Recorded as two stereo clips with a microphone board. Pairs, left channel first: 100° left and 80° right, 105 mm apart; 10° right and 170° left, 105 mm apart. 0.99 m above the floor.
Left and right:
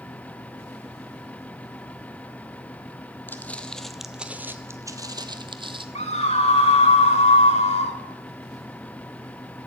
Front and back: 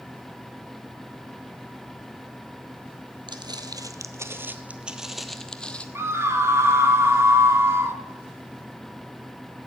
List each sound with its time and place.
3.3 s footsteps: 165° left, 1.3 m; by 5.8 s 85° right, 1.5 m
6.0 s a scream: 105° left, 2.5 m